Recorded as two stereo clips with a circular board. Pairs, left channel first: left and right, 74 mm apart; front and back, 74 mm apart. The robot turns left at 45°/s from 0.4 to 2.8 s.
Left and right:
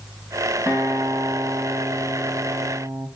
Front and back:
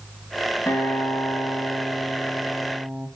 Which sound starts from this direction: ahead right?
A guitar, at 0.7 s.